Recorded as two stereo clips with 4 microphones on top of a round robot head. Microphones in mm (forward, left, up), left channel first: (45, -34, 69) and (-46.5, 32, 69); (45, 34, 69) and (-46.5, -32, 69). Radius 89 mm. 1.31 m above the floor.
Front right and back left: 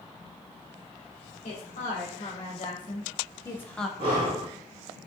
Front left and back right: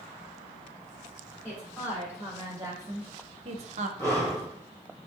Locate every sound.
1.4 s a woman speaking: 65° right, 1.6 m; by 3.9 s 125° right, 0.6 m
4.0 s breathing: 105° left, 2 m